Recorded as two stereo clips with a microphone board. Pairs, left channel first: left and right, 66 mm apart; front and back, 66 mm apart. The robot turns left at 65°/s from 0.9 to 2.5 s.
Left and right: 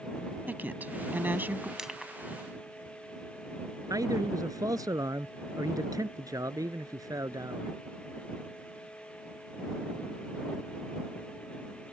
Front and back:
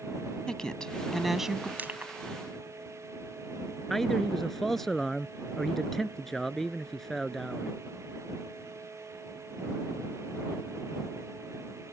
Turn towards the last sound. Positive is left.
turn(degrees=-85)